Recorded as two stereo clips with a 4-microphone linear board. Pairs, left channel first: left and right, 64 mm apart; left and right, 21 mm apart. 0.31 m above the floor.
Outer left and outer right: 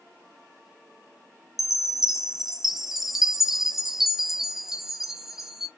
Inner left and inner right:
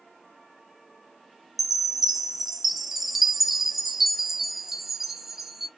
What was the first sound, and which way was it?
A chime, 5° right (ahead or behind).